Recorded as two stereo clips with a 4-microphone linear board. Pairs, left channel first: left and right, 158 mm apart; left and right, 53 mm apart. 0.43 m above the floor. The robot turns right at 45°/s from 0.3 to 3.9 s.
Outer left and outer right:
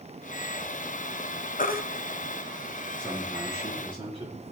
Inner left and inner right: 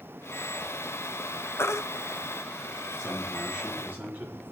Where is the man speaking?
175° left, 6.5 m; by 4.5 s 145° right, 6.5 m.